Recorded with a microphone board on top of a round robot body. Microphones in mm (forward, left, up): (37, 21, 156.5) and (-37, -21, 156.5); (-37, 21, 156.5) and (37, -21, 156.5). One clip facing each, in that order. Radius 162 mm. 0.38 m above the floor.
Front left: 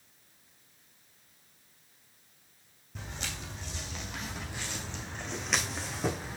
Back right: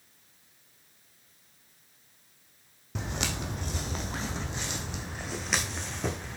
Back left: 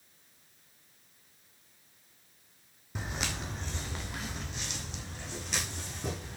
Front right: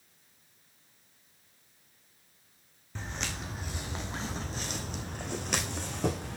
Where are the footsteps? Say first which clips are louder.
Back right 8 dB, back left 1 dB; 135° right, 1.1 m; by 6.4 s 50° right, 1.9 m.